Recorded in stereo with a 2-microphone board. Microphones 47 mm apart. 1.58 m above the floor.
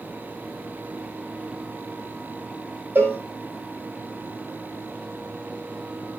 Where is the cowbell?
40° right (ahead or behind), 4 m.